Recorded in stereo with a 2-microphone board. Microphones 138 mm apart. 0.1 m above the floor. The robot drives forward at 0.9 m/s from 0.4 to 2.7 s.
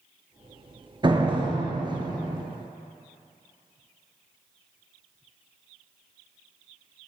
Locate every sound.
1.0 s a door slam: 35° right (ahead or behind), 1.3 m; by 2.4 s 30° right (ahead or behind), 1.5 m